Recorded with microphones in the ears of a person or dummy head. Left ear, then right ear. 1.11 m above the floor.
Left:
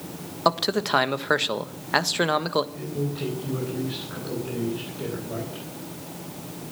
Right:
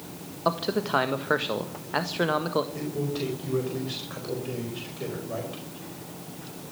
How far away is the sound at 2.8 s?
About 4.5 m.